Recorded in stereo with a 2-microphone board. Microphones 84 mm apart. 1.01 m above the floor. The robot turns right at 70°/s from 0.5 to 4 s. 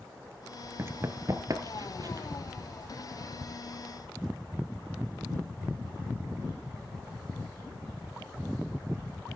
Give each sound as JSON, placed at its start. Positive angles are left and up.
{"t": 0.8, "sound": "running footsteps", "side_deg": -30, "distance_m": 1.1}